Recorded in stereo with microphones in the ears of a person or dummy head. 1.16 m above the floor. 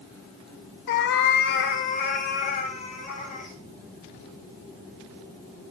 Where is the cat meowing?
55° left (ahead or behind), 1.0 m; by 3.5 s 40° left (ahead or behind), 4 m.